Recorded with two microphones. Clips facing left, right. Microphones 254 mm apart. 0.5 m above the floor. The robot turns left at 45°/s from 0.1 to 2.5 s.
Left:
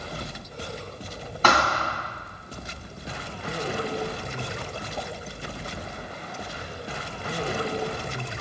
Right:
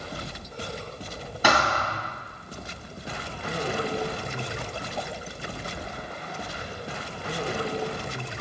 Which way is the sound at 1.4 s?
10° right (ahead or behind).